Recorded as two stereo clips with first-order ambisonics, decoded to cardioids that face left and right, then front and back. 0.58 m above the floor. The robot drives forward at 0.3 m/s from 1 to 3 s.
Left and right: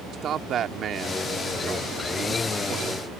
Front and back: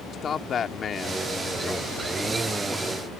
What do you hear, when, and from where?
0.1 s a man speaking: 50° right; by 3.1 s 95° right